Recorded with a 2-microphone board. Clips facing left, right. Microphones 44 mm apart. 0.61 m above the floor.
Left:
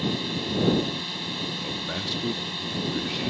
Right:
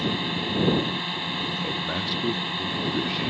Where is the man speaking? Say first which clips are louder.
Right 3 dB; 5° right (ahead or behind).